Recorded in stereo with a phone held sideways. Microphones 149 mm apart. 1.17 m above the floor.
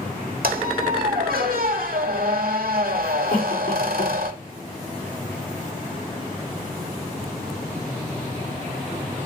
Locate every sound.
0.4 s a squeak: 75° right (ahead or behind), 1.4 m
3.3 s a cough: 70° left (ahead or behind), 4 m